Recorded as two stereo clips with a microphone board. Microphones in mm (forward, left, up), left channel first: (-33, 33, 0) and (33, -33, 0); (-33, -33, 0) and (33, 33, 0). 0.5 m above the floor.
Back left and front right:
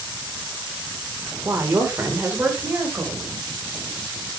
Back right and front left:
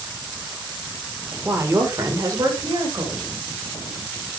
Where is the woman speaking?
5° right, 1.7 m; by 3.3 s 20° left, 2.5 m.